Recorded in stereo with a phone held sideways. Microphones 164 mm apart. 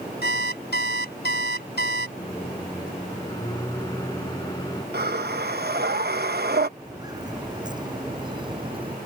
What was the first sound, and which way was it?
An alarm clock, 85° left.